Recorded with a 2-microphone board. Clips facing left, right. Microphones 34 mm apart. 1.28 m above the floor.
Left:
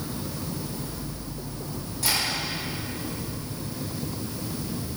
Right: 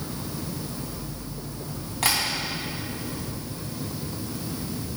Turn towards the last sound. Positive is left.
turn(degrees=-65)  # may be behind; listen again after turning